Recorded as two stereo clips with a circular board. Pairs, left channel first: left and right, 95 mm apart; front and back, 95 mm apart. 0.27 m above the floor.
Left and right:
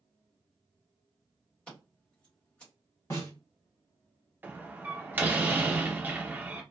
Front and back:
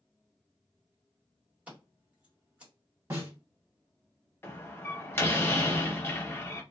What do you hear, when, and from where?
1.7 s scissors: 145° left, 1.6 m
3.1 s a snare drum: 135° left, 1.7 m
4.4 s a door slam: 40° right, 0.7 m